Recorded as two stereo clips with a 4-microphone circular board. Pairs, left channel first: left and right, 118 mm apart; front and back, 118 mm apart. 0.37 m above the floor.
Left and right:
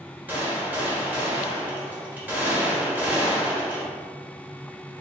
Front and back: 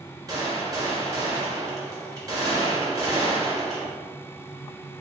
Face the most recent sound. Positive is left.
turn(degrees=-155)